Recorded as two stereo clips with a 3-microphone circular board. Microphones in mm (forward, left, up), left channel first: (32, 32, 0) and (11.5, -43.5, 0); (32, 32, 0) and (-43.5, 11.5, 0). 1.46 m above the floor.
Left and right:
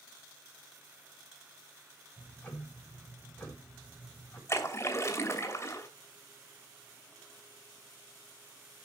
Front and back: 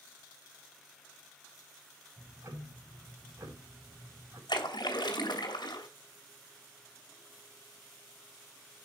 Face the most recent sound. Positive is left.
turn(degrees=25)